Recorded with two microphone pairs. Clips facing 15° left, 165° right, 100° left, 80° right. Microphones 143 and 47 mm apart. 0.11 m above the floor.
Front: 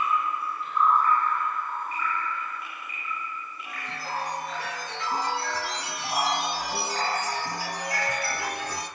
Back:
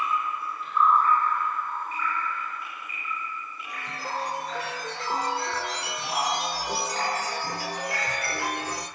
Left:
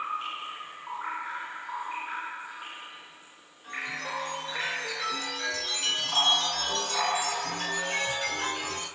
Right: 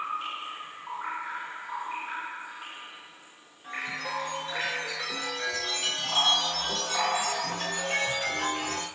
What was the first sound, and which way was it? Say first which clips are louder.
A chime: back 1 dB, right 1 dB; 160° right.